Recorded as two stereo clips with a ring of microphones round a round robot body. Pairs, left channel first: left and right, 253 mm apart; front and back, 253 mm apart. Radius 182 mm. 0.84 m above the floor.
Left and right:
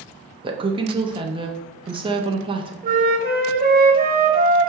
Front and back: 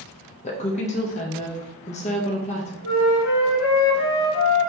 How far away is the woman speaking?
About 0.7 m.